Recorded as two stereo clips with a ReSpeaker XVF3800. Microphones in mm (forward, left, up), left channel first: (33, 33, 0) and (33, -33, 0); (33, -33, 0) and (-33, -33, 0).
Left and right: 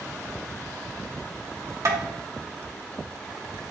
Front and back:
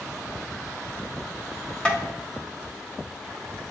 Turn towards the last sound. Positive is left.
turn(degrees=-70)